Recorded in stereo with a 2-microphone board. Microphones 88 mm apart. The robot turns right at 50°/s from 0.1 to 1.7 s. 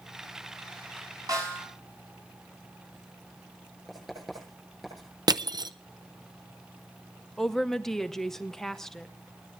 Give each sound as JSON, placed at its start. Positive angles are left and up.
{"t": 1.3, "sound": "a snare drum", "side_deg": -45, "distance_m": 6.5}
{"t": 3.9, "sound": "writing", "side_deg": 0, "distance_m": 9.0}
{"t": 5.3, "sound": "crushing", "side_deg": -50, "distance_m": 0.5}
{"t": 7.4, "sound": "a woman speaking", "side_deg": 5, "distance_m": 0.9}